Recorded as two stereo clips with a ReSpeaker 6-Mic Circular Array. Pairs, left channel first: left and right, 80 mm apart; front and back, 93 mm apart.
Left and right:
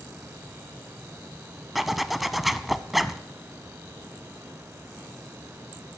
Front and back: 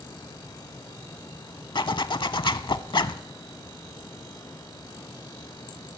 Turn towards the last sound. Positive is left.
turn(degrees=0)